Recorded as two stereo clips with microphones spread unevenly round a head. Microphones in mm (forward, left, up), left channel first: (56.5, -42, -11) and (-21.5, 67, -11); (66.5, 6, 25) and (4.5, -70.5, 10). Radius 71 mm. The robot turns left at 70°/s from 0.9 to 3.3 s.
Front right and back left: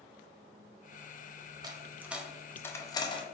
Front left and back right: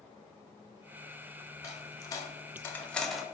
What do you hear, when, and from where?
1.6 s a dropped coin: 80° left, 0.6 m; by 3.2 s 30° right, 0.6 m